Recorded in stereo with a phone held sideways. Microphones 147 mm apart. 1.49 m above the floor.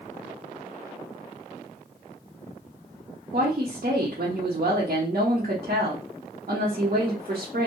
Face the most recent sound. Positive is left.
turn(degrees=-60)  # may be behind; listen again after turning